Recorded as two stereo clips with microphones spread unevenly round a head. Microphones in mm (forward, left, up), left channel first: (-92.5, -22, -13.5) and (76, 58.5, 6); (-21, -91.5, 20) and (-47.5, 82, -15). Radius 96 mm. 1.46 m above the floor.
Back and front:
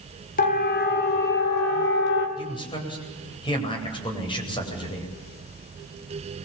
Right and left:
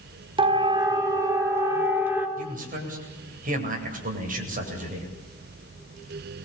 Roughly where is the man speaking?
Behind left.